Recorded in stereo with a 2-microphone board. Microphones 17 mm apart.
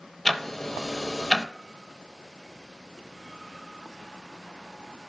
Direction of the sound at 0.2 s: 10° left (ahead or behind).